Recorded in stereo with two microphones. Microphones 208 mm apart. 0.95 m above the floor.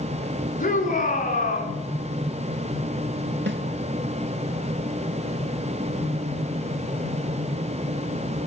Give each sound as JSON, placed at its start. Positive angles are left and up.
{"t": 0.6, "sound": "a shout", "side_deg": 40, "distance_m": 9.5}
{"t": 3.5, "sound": "a snare drum", "side_deg": -60, "distance_m": 4.5}